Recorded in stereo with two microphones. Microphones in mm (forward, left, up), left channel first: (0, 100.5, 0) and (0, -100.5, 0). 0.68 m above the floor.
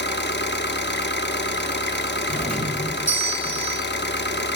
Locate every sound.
0.0 s an engine running: 65° left (ahead or behind), 0.8 m
2.3 s a doorbell: 40° left (ahead or behind), 3.5 m